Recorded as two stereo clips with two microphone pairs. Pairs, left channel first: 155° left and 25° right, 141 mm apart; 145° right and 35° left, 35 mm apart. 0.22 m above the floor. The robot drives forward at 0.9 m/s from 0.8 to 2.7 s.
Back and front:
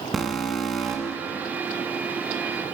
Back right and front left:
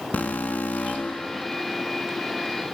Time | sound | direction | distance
0.1 | an alarm | 115° right | 1.7 m